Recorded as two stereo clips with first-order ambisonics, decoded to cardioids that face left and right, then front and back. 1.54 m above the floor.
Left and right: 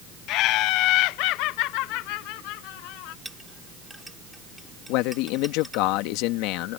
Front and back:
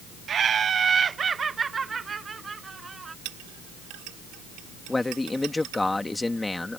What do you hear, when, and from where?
0.3 s laughter: 120° left; by 3.1 s 105° left
3.2 s a clink: 175° right
4.9 s a man speaking: 80° left